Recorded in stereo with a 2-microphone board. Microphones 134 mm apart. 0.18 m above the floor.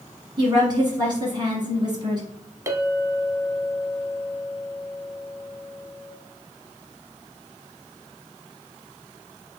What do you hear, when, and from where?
0.4 s a woman speaking: 35° right (ahead or behind), 1.2 m
2.7 s a clink: 20° right (ahead or behind), 0.6 m